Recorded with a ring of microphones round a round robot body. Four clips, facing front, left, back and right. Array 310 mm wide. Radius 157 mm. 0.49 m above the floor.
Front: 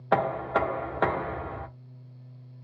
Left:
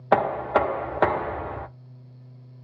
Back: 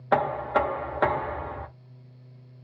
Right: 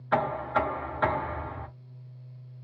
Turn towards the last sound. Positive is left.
turn(degrees=90)